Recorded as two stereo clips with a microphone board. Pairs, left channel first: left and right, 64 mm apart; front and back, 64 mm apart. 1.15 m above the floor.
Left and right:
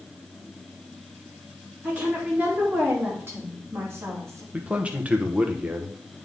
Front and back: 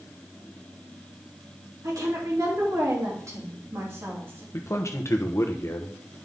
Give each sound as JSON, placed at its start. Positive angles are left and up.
{"t": 1.8, "sound": "a woman speaking", "azimuth_deg": -155, "distance_m": 3.0}
{"t": 4.5, "sound": "a man speaking", "azimuth_deg": -25, "distance_m": 1.0}